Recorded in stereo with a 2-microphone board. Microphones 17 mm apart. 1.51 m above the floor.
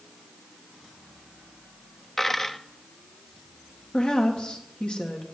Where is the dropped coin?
25° left (ahead or behind), 0.9 m.